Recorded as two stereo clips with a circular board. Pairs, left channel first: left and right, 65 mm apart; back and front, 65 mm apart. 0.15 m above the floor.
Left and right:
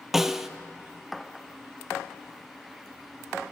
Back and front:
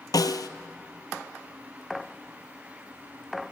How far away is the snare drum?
About 0.5 m.